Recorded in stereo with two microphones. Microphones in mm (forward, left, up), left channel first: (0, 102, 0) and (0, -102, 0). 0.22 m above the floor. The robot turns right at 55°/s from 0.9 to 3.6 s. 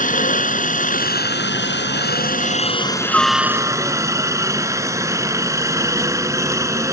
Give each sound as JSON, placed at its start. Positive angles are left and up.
{"t": 0.0, "sound": "a helicopter", "azimuth_deg": 50}